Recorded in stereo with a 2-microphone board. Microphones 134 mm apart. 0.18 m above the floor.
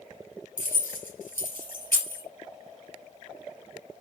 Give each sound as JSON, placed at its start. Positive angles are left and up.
{"t": 0.6, "sound": "keys jangling", "side_deg": 15, "distance_m": 1.9}